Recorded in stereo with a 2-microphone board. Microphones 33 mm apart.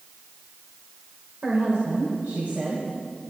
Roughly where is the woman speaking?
Right.